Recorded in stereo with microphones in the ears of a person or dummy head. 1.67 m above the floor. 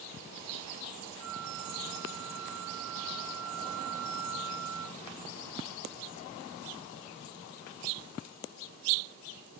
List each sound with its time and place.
1.2 s a flute: 80° right